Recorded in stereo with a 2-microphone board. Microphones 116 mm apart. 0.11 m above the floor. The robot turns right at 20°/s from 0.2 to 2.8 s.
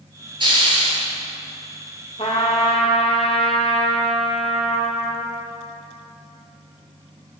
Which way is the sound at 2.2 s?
55° left (ahead or behind).